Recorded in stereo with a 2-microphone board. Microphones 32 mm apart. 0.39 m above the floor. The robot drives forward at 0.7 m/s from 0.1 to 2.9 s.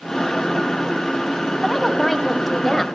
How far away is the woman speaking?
About 3 m.